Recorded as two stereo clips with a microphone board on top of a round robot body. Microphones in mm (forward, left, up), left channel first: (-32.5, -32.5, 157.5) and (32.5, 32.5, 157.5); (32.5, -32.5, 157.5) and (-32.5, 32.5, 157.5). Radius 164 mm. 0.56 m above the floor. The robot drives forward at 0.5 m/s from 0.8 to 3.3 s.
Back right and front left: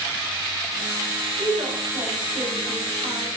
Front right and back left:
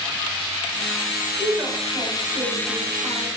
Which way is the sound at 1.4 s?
75° left.